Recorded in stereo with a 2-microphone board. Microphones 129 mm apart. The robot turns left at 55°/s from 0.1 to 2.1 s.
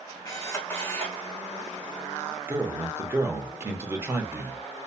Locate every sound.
0.2 s a camera shutter: 60° left, 1.3 m; by 1.2 s 5° left, 1.3 m
2.5 s a man speaking: 20° right (ahead or behind), 0.8 m